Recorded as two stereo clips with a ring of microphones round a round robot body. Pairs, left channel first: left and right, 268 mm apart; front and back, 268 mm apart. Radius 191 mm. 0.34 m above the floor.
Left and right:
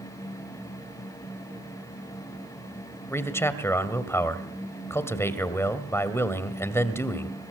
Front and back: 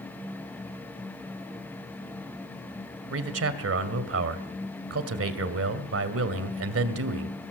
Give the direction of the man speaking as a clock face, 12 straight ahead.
6 o'clock.